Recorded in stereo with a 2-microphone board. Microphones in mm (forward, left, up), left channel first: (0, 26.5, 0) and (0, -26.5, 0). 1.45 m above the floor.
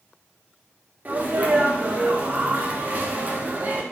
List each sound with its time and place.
1.1 s a sneeze: 35° right (ahead or behind), 0.5 m